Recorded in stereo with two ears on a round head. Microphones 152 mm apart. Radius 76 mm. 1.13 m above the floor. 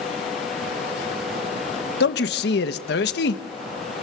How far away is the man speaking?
About 1.6 m.